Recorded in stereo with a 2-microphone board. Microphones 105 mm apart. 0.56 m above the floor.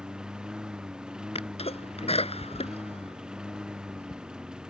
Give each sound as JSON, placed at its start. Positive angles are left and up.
{"t": 0.0, "sound": "a lawn mower", "side_deg": -5}
{"t": 1.4, "sound": "a sneeze", "side_deg": 80}